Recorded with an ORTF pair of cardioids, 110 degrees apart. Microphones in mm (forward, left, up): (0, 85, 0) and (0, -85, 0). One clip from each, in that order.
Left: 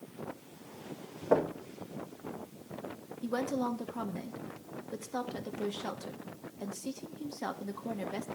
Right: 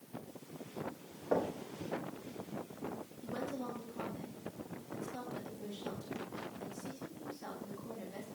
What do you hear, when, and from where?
1.3 s knocking: 35° left, 2.5 m
3.2 s a woman speaking: 60° left, 1.5 m